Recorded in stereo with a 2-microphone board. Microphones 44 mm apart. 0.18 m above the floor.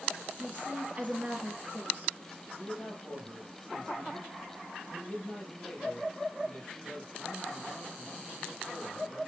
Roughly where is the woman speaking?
Right.